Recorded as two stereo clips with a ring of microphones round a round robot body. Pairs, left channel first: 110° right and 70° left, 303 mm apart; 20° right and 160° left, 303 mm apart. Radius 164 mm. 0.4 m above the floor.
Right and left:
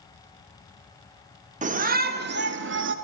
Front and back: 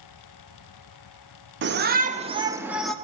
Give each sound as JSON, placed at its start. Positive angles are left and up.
{"t": 1.6, "sound": "a shout", "azimuth_deg": 125, "distance_m": 1.3}